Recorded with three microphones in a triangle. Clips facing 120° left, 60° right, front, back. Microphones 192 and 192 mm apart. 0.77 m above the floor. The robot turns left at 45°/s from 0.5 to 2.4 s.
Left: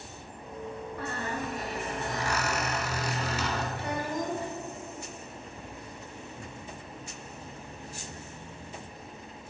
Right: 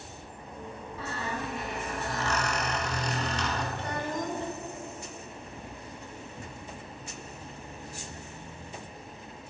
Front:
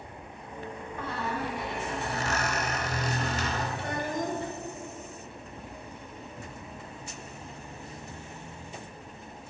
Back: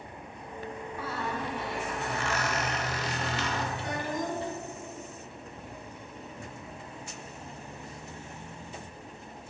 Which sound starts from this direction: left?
A squeak, at 1.0 s.